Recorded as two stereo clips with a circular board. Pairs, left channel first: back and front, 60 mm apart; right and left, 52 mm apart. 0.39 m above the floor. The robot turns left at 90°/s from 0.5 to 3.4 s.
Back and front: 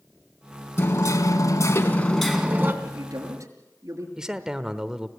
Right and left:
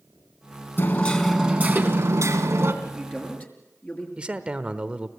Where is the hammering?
135° right, 2 m; by 2.7 s 50° left, 2 m.